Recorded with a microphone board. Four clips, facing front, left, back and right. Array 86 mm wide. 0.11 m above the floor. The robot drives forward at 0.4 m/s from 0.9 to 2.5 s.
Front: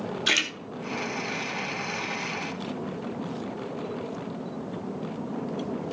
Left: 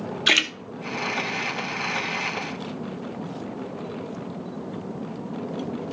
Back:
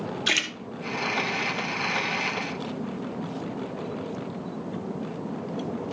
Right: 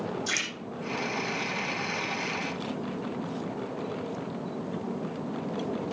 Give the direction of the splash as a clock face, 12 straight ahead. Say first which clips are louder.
Left 9 dB, front 1 dB; 9 o'clock.